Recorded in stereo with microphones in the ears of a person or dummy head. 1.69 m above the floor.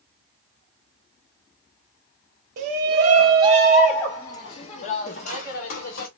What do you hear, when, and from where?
2.6 s a shout: 50° right (ahead or behind), 0.8 m; by 6.1 s 60° left (ahead or behind), 1.2 m